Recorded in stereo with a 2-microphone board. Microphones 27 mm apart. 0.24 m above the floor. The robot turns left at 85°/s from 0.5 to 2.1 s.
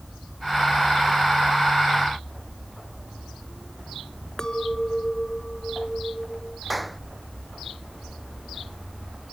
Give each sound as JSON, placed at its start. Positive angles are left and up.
{"t": 4.4, "sound": "a clink", "side_deg": 20}
{"t": 6.7, "sound": "a clap", "side_deg": -5}